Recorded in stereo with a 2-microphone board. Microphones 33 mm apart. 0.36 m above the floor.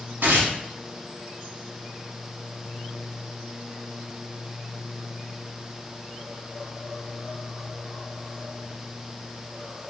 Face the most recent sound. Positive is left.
turn(degrees=-80)